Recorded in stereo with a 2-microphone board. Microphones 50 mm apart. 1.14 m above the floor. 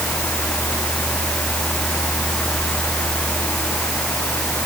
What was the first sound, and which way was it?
Only background noise.